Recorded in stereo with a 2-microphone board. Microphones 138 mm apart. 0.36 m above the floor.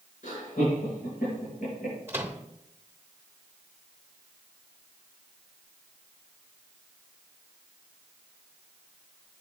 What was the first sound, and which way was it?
Laughter, 75° left (ahead or behind).